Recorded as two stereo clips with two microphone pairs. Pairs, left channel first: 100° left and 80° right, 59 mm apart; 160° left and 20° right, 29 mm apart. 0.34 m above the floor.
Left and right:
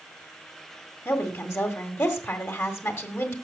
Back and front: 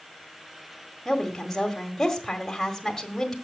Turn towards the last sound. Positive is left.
turn(degrees=90)